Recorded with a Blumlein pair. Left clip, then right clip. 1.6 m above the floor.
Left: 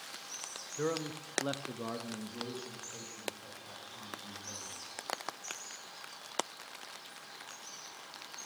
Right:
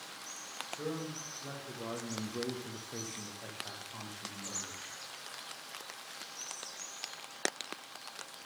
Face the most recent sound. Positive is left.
turn(degrees=-55)